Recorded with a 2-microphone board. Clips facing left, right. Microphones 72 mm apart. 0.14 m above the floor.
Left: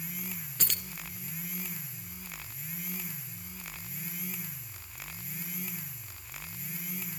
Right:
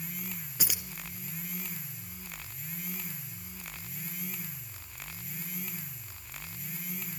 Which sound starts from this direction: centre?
Keys jangling, at 0.6 s.